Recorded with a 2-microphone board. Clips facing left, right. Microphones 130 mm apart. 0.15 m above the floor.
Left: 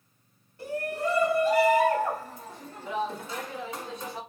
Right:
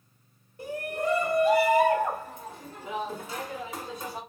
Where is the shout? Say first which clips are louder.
Even; 15° right (ahead or behind), 1.2 m; by 4.2 s 10° right (ahead or behind), 1.7 m.